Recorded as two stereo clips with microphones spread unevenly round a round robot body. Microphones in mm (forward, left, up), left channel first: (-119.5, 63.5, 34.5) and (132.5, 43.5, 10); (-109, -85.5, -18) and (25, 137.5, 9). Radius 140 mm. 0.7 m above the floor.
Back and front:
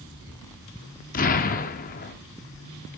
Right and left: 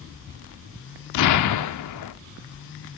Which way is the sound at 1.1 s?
120° right.